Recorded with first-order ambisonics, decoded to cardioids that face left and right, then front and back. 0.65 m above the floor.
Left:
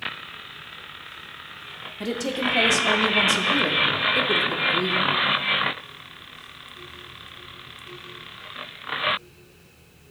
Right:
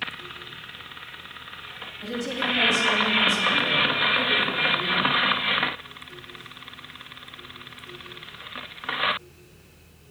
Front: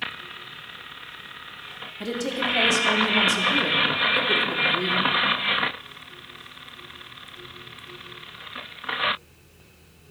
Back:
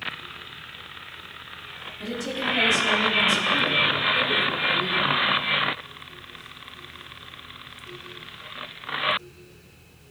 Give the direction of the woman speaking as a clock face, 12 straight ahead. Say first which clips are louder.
Left 2 dB, front 2 dB; 10 o'clock.